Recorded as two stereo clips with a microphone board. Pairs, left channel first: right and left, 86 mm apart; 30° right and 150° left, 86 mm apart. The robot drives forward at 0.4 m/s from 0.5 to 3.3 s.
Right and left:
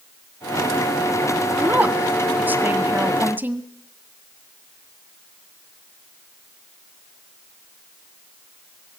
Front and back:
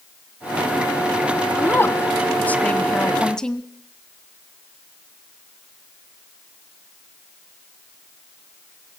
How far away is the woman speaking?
About 1.8 m.